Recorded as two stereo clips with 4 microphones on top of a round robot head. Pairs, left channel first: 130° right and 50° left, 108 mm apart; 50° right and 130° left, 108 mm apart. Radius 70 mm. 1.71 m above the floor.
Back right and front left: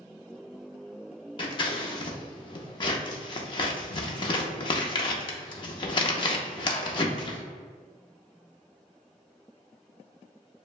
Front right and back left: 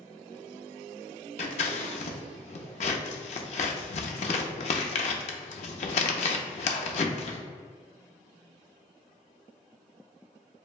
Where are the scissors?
80° right, 0.5 m.